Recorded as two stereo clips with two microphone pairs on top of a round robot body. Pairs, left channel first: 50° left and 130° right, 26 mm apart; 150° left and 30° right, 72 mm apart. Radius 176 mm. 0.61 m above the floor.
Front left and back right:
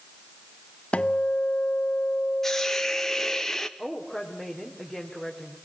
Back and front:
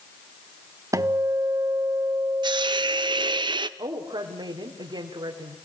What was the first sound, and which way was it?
A guitar, 10° left.